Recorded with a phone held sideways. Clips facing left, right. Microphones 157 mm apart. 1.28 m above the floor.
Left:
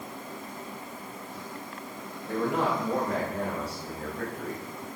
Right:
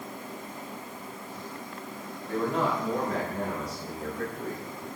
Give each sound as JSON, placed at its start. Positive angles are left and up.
{"t": 2.3, "sound": "a man speaking", "side_deg": 60, "distance_m": 6.0}